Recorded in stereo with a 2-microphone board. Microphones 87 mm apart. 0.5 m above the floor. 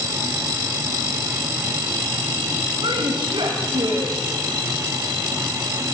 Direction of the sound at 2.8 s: 70° right (ahead or behind).